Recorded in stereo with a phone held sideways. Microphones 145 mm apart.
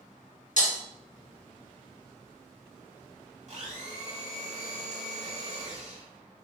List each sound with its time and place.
0.6 s breaking glass: 60° left (ahead or behind), 1.0 m
3.5 s a blender: 55° right (ahead or behind), 1.0 m